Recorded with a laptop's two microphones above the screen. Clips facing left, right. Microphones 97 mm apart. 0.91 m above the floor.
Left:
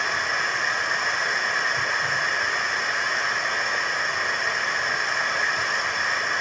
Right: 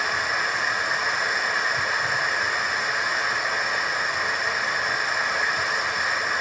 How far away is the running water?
About 1.5 m.